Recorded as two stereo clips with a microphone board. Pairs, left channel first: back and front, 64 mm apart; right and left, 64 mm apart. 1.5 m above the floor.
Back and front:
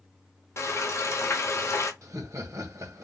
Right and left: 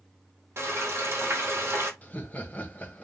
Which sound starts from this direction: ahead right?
Laughter, at 2.0 s.